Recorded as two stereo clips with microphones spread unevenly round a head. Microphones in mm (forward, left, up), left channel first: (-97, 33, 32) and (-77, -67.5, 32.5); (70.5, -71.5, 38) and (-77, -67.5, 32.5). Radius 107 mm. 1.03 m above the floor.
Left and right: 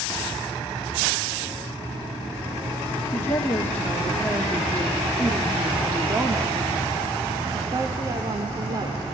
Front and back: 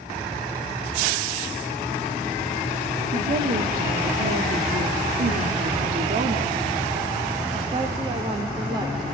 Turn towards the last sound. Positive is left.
turn(degrees=-120)